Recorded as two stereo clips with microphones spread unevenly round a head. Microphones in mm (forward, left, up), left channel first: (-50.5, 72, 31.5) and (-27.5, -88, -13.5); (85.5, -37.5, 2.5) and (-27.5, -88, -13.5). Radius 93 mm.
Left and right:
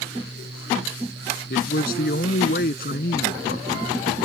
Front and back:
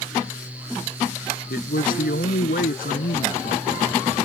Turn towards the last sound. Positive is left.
turn(degrees=55)